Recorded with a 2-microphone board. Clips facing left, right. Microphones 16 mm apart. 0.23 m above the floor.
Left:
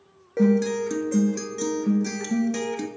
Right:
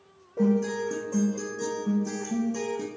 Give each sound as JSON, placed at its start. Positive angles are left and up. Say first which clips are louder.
{"t": 0.4, "sound": "a guitar", "louder": "left 4 dB", "side_deg": 70, "distance_m": 0.5}